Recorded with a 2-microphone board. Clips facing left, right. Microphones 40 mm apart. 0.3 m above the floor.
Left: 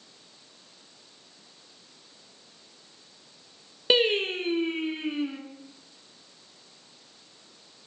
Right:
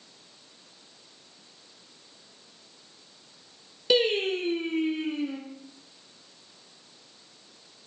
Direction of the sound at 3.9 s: 35° left (ahead or behind).